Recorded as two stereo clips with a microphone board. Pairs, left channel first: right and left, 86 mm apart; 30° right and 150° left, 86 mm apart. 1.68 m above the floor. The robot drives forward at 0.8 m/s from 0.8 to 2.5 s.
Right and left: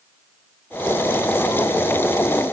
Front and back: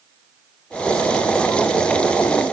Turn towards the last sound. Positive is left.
No sound to turn to.